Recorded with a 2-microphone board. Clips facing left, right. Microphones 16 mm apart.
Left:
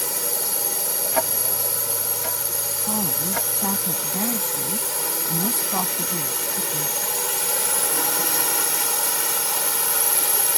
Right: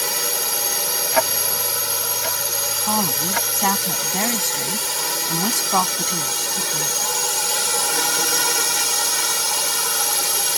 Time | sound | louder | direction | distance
0.0 | a drone | right 5 dB | 35° right (ahead or behind) | ?
1.1 | ticking | right 4 dB | 30° right (ahead or behind) | ?
2.9 | a woman speaking | right 5 dB | 80° right | ?